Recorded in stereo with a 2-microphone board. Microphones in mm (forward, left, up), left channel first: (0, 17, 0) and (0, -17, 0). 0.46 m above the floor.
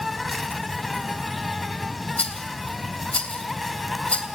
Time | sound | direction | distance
0.0 | an insect | centre (ahead or behind) | 1.2 m
2.2 | a rattle | 40° left (ahead or behind) | 2.5 m